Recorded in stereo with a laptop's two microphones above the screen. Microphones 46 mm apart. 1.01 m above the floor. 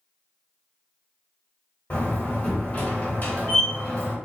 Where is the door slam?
35° left (ahead or behind), 1.3 m.